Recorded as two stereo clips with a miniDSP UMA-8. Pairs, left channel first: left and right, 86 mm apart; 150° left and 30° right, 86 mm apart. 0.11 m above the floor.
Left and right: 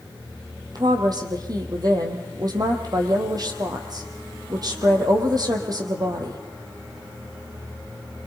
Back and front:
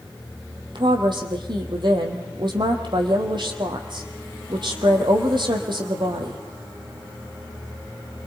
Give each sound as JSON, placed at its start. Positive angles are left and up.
{"t": 0.8, "sound": "a woman speaking", "azimuth_deg": -50, "distance_m": 3.5}